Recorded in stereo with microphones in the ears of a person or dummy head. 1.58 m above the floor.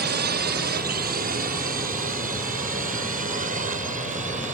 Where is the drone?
50° right (ahead or behind); by 4.5 s 35° right (ahead or behind).